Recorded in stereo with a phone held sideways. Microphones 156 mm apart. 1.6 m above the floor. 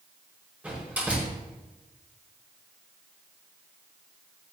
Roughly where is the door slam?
Centre.